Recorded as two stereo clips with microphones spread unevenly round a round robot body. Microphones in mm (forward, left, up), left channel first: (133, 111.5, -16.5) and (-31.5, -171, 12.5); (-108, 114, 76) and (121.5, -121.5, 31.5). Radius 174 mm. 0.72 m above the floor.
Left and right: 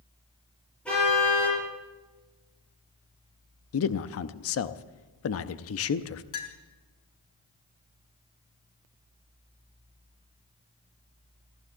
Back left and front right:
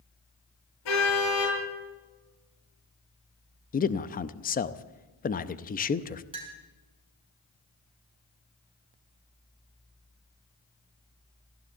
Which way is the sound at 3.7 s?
70° left.